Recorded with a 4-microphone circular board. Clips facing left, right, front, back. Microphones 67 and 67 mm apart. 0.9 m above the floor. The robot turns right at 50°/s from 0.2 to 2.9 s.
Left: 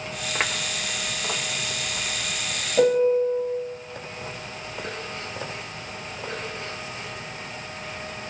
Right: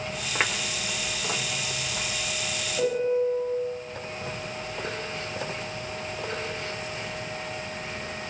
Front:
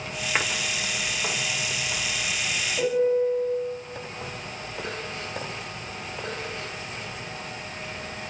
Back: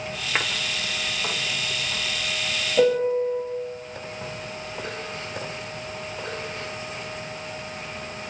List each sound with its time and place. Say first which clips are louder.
2.8 s a piano: left 6 dB, back 2 dB; 130° left, 5.5 m; by 3.4 s 140° left, 5.5 m